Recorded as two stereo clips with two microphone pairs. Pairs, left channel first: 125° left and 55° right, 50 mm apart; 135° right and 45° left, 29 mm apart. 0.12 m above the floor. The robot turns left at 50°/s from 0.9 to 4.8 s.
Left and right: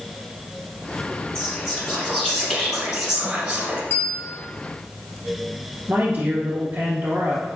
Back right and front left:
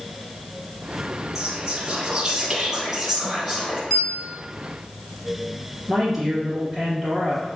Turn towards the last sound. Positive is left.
turn(degrees=-35)